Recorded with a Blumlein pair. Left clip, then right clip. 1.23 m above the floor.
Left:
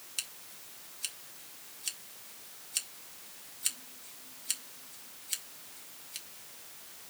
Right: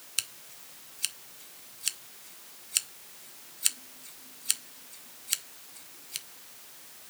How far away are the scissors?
About 0.6 m.